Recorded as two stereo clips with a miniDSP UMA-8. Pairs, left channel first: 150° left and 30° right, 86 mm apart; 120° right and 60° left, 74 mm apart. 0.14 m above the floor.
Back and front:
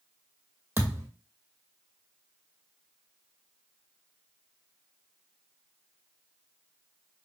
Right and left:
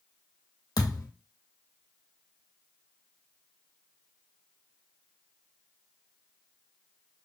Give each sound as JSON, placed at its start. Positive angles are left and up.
{"t": 0.8, "sound": "a thud", "azimuth_deg": -95, "distance_m": 1.5}